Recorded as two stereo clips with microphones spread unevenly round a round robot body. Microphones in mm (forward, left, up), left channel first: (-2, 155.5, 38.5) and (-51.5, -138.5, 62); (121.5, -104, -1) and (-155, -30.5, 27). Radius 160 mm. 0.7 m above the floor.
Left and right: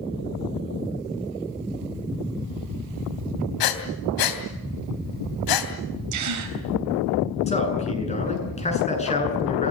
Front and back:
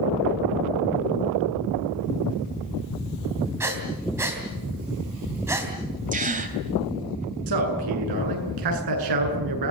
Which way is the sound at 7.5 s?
150° left.